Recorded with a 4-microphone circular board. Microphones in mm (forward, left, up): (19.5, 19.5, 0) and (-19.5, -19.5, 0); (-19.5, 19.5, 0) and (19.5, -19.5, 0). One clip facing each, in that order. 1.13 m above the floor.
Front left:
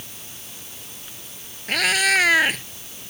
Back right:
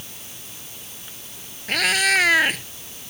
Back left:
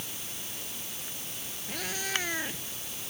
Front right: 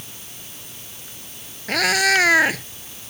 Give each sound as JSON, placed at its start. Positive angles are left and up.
{"t": 1.7, "sound": "a cat meowing", "azimuth_deg": -45}